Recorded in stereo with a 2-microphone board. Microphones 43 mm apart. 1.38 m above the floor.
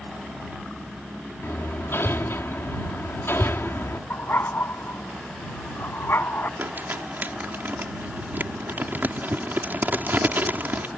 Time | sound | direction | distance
1.4 | hammering | 60° left (ahead or behind) | ?
4.1 | a dog barking | 55° left (ahead or behind) | ?
6.6 | crumpling | 45° right (ahead or behind) | ?